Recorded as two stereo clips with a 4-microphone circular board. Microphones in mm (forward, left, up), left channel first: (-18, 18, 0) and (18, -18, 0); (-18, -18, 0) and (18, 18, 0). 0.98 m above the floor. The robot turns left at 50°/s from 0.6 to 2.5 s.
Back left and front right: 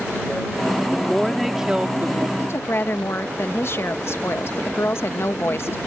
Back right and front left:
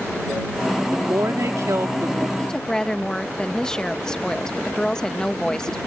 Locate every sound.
0.9 s a woman speaking: 70° left; by 2.3 s straight ahead
2.4 s a woman speaking: 155° left; by 5.8 s 150° left